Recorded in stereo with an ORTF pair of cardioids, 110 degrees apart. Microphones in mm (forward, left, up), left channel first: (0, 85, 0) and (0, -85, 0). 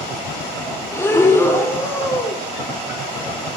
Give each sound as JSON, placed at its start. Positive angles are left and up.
{"t": 0.9, "sound": "breathing", "azimuth_deg": 15, "distance_m": 2.5}